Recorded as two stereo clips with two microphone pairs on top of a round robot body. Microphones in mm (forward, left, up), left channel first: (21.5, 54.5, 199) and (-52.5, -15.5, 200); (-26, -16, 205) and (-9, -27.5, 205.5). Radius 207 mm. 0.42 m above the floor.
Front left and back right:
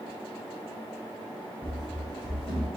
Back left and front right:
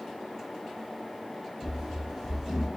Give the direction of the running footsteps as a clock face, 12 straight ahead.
12 o'clock.